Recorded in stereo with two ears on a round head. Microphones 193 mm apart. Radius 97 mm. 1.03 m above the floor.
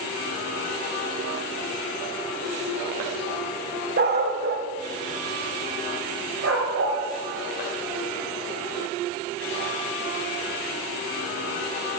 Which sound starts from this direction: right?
A dog barking, at 4.0 s.